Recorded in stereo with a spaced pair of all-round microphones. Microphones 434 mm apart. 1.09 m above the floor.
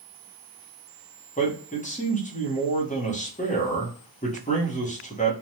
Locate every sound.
1.4 s a man speaking: 15° left (ahead or behind), 1.0 m